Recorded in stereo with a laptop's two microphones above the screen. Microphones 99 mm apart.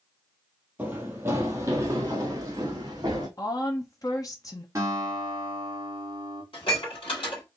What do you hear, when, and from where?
0.8 s running footsteps: 15° right (ahead or behind), 1.4 m; by 3.3 s 40° right (ahead or behind), 2.5 m
3.4 s a woman speaking: 40° left (ahead or behind), 0.8 m
4.8 s a guitar: 35° right (ahead or behind), 1.8 m
6.5 s dishes clattering: 70° left (ahead or behind), 1.6 m